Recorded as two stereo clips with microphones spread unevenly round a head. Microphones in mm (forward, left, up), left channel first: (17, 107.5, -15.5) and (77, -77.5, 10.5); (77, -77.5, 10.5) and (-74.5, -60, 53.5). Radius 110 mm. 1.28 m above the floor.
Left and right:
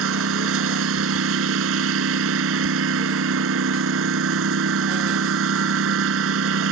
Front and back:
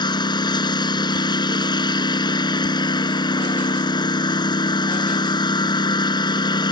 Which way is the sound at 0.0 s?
70° right.